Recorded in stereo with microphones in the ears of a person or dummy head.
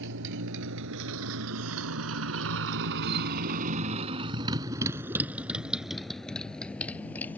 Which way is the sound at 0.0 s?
60° right (ahead or behind).